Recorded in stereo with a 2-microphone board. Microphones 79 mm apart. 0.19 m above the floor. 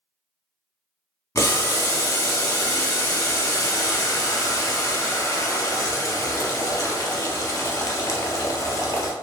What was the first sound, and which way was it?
Boiling, 45° left (ahead or behind).